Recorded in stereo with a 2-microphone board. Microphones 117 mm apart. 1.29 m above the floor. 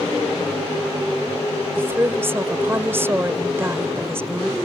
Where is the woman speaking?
20° right (ahead or behind).